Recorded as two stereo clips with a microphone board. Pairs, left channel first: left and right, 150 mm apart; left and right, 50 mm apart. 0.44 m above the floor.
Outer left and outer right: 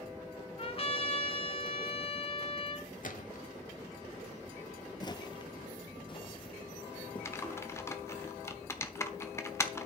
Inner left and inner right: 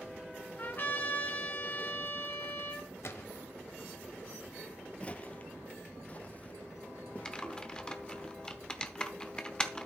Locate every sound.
0.6 s a trumpet: 40° left (ahead or behind), 1.4 m
3.0 s a gunshot: 60° left (ahead or behind), 0.9 m
5.0 s footsteps: 30° left (ahead or behind), 0.5 m; by 8.2 s 35° left (ahead or behind), 2 m
7.2 s typing on a keyboard: 20° left (ahead or behind), 0.9 m